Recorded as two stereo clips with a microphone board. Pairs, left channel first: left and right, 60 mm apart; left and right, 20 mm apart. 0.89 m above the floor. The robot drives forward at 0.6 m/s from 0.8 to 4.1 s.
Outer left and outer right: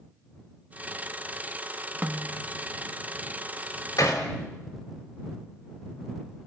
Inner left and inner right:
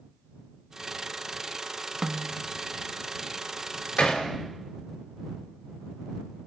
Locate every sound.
2.0 s a snare drum: 30° right (ahead or behind), 0.7 m
4.0 s hammering: 75° left (ahead or behind), 3 m; by 4.2 s 70° left (ahead or behind), 3 m